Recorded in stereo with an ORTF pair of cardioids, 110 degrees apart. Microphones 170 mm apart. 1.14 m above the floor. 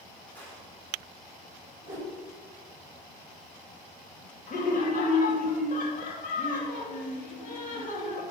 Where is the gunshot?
10° left, 3 m.